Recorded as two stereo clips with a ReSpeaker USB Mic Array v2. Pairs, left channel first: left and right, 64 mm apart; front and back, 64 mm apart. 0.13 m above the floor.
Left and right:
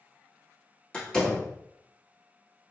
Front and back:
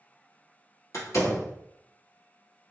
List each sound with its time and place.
0.9 s a door slam: 15° left, 1.6 m